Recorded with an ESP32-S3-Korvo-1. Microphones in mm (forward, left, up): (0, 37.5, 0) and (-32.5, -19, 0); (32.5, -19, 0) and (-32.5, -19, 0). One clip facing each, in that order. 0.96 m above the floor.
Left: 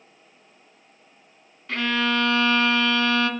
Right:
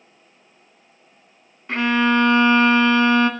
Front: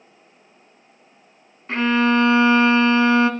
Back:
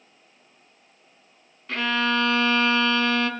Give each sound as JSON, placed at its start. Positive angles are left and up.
{"t": 1.7, "sound": "a violin", "azimuth_deg": -50, "distance_m": 1.7}